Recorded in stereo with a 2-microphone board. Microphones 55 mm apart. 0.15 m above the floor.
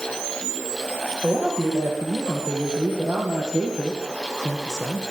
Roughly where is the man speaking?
Centre.